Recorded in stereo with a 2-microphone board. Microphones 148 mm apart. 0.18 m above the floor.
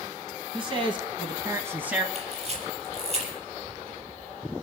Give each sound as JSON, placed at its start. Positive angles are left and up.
{"t": 0.5, "sound": "a man speaking", "side_deg": -35, "distance_m": 1.7}
{"t": 2.1, "sound": "a camera shutter", "side_deg": -45, "distance_m": 5.0}